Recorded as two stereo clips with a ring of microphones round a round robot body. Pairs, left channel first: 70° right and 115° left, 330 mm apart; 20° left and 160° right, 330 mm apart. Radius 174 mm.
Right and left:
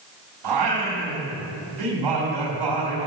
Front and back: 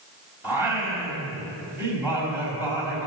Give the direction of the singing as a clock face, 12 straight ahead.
8 o'clock.